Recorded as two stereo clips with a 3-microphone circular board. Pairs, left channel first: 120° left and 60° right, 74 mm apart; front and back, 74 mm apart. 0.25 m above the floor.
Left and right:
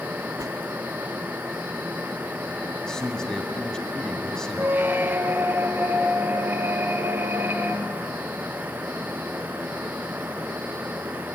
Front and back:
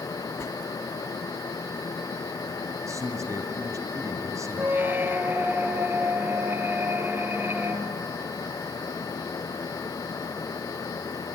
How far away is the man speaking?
About 2.0 m.